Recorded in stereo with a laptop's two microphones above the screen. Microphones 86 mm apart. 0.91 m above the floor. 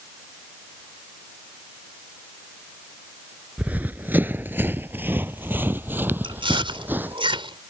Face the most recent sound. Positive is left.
turn(degrees=-75)  # may be behind; listen again after turning